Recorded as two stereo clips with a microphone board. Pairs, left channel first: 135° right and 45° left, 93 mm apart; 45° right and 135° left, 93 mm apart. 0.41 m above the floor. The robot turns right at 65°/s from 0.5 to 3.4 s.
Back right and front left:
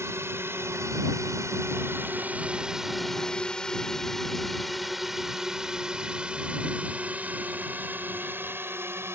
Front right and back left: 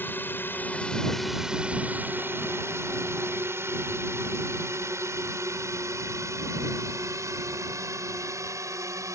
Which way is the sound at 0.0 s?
5° left.